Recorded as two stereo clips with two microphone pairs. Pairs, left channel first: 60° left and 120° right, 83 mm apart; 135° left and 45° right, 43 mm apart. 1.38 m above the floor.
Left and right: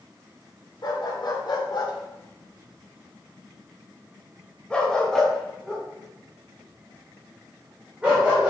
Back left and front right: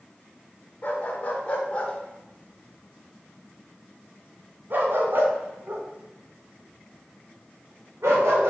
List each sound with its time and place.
0.8 s a dog barking: 85° left, 1.9 m; by 8.5 s 50° right, 3.5 m